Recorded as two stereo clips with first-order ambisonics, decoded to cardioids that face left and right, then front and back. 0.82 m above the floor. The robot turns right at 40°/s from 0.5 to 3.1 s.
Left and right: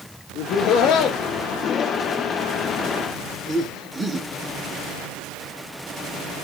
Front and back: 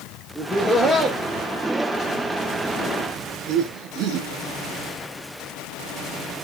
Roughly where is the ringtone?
I don't hear a ringtone.